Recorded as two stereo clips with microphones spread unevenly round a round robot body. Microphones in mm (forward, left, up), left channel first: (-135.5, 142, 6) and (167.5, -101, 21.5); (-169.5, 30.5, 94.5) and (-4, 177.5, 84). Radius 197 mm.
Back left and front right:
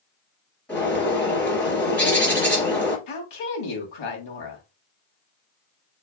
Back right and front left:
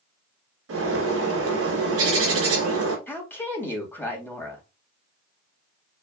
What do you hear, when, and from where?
0.7 s a bird: 55° left, 2.5 m
3.1 s a woman speaking: 140° left, 2.5 m